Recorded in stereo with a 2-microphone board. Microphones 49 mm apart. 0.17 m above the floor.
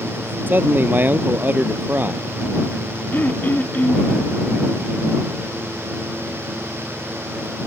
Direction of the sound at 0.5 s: 40° right (ahead or behind).